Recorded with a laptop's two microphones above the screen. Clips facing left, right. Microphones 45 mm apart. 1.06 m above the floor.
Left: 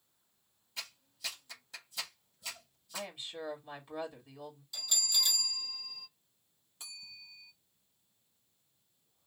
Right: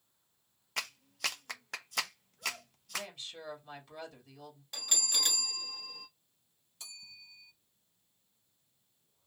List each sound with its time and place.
0.8 s a clap: 65° right (ahead or behind), 0.8 m
2.9 s a woman speaking: 20° left (ahead or behind), 2.0 m
4.7 s a bell: 55° right (ahead or behind), 1.4 m
6.8 s a bell: 20° left (ahead or behind), 1.8 m